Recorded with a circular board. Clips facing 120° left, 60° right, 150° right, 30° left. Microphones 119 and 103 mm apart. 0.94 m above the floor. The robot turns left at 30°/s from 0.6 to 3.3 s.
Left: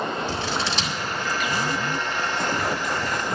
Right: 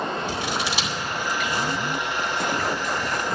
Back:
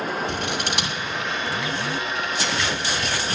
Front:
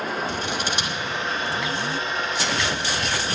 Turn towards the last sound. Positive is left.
turn(degrees=145)